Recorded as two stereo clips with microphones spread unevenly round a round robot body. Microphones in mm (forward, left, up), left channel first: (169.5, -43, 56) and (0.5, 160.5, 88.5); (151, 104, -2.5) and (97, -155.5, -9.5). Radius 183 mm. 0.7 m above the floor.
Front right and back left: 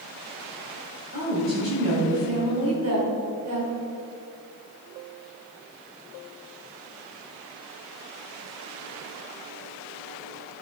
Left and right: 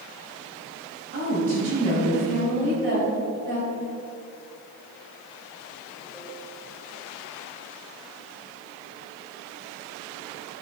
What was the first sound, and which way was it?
A woman speaking, 165° right.